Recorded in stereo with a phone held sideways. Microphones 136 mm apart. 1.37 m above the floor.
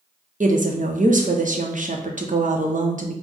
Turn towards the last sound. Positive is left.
turn(degrees=-70)  # may be behind; listen again after turning